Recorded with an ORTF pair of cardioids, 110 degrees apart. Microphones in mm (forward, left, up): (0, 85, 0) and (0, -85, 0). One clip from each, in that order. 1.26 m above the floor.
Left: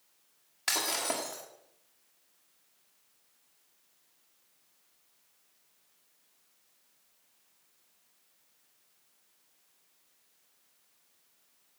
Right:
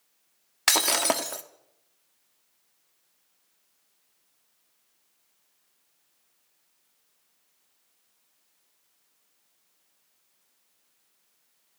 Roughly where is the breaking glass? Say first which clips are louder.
Right 8 dB; ahead right.